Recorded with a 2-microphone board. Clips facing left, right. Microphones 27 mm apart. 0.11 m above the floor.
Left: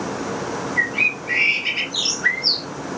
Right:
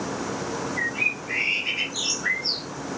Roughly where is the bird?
Left.